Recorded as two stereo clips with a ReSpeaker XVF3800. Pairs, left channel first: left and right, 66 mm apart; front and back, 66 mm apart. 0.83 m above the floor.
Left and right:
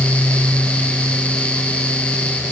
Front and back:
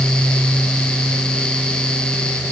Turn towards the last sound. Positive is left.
No sound to turn to.